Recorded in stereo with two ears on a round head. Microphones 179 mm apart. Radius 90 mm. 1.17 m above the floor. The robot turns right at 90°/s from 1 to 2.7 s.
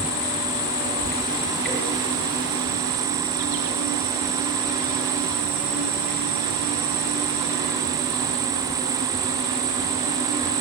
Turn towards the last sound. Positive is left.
turn(degrees=-75)